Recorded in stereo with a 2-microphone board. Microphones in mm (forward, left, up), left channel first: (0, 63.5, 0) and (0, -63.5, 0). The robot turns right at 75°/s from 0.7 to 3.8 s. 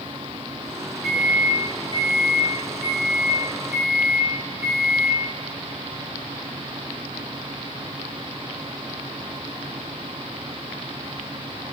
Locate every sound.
1.0 s a microwave: 5° right (ahead or behind), 1.0 m